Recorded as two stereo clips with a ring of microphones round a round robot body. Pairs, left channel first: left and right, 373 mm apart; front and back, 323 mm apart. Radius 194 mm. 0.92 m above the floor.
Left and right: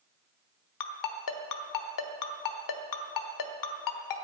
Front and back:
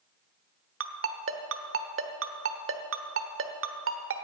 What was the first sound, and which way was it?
A ringtone, 130° left.